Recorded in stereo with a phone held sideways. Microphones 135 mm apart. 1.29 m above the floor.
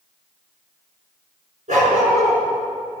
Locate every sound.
1.7 s a dog barking: 70° right (ahead or behind), 6 m